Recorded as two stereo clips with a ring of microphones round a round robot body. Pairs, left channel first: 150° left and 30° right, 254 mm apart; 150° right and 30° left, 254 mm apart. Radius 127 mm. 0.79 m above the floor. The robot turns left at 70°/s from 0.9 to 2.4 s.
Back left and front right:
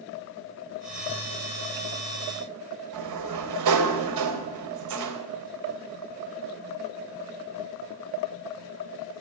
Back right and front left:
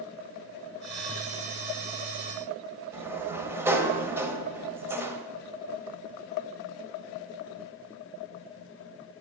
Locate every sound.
2.9 s a sliding door: 50° right, 1.8 m